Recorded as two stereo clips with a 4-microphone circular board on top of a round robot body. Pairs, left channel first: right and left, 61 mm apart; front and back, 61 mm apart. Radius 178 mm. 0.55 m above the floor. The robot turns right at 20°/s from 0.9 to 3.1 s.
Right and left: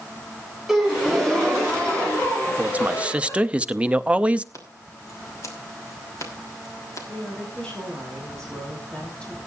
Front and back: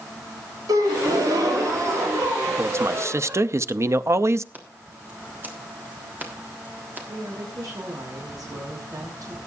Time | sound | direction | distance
0.7 | a gasp | 175° left | 3.5 m
2.6 | a man speaking | 145° left | 0.9 m
4.5 | scissors | 120° right | 3.5 m
7.1 | a woman speaking | 165° right | 5.5 m